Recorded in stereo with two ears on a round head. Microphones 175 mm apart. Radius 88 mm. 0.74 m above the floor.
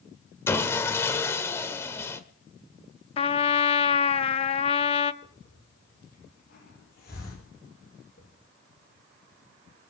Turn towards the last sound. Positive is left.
turn(degrees=55)  # may be behind; listen again after turning